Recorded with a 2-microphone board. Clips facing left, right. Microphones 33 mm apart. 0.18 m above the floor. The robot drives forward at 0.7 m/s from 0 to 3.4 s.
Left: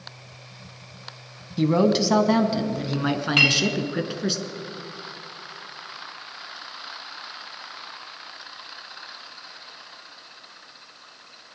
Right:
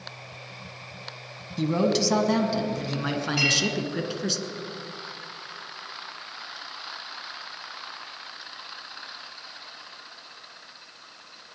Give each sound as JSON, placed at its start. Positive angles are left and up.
{"t": 1.6, "sound": "a man speaking", "side_deg": 20, "distance_m": 1.0}
{"t": 3.4, "sound": "a clink", "side_deg": 70, "distance_m": 4.0}